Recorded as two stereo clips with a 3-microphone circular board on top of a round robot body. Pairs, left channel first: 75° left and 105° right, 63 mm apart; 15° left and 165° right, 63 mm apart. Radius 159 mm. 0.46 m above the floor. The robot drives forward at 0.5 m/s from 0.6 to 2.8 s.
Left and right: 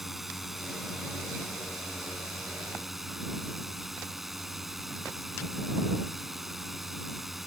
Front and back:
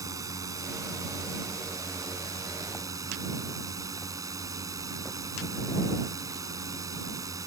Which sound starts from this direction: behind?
A drone, at 0.0 s.